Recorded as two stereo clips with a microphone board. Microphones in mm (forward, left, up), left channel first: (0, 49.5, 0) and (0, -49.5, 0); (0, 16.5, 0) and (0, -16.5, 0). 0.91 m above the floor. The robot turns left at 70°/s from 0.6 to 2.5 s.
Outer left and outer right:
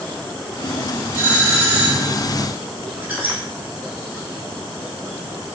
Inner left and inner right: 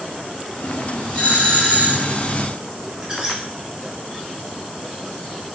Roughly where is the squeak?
Centre.